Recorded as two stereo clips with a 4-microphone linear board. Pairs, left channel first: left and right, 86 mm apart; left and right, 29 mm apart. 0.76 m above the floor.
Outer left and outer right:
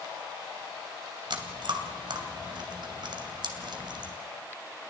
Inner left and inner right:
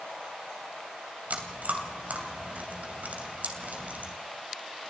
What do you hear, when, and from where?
1.3 s chewing: 70° right (ahead or behind), 3 m